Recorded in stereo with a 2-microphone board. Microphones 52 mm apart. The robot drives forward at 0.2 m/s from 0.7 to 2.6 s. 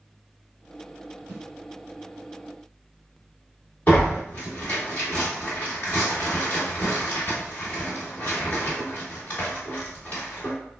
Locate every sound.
1.3 s a snare drum: 30° left (ahead or behind), 1.8 m
3.9 s tearing paper: 25° left (ahead or behind), 1.5 m